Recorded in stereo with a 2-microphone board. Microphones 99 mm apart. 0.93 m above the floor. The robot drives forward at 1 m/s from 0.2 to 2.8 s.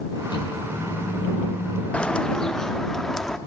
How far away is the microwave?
About 8.5 m.